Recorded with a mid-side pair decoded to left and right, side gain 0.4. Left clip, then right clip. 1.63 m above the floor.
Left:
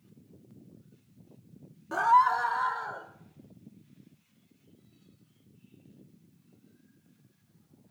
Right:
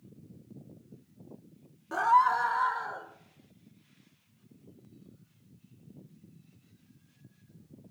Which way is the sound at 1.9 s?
15° left.